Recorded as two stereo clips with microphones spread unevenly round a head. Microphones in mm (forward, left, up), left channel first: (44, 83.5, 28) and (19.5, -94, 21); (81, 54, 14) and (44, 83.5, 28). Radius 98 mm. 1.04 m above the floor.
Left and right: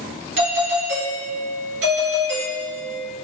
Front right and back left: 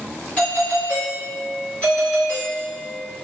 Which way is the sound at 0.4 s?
95° right.